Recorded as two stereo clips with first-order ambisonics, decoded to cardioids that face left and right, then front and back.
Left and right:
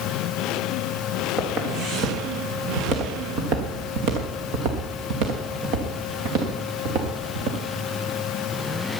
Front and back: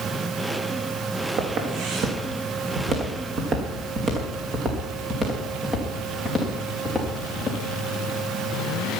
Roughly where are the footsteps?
Behind right.